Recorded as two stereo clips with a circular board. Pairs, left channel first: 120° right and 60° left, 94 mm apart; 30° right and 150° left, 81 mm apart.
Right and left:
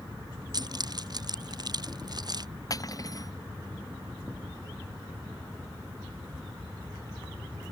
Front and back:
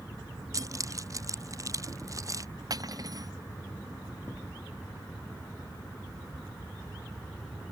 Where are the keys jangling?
105° left.